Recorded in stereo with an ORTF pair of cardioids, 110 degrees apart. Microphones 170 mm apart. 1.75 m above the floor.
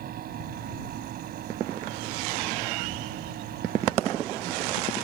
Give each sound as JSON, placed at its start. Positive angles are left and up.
{"t": 0.0, "sound": "a fan", "azimuth_deg": -65}